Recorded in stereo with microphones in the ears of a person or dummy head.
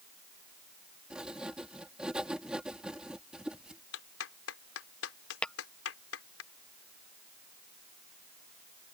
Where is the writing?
10° right (ahead or behind).